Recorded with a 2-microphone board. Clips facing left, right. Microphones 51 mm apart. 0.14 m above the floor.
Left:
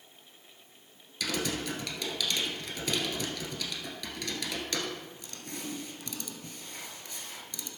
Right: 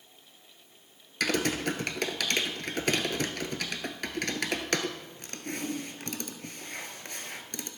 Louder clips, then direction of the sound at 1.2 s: Right 5 dB; 55° right (ahead or behind).